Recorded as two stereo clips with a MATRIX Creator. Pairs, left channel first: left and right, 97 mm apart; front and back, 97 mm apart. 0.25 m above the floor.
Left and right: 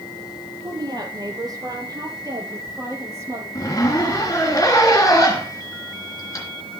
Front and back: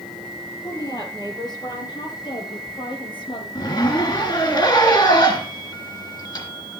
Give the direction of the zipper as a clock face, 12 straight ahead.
11 o'clock.